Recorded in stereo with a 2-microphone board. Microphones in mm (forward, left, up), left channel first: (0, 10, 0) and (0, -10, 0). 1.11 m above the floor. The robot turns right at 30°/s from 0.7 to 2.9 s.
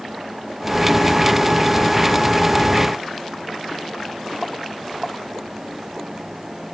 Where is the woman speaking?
No woman speaking in this recording.